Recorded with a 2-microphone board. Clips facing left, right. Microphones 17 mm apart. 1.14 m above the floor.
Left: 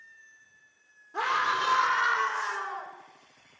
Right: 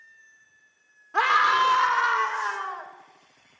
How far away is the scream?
About 3 m.